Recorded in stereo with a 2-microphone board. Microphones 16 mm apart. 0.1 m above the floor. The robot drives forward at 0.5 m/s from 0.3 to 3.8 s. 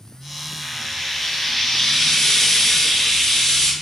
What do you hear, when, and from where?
0.6 s frying: 20° left (ahead or behind), 1.7 m